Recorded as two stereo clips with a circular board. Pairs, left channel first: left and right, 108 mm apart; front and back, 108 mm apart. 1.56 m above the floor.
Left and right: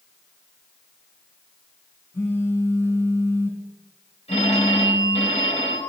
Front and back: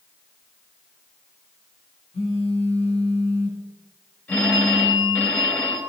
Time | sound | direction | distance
2.1 | a phone buzzing | 25° left | 2.5 m
4.3 | a phone ringing | 75° left | 3 m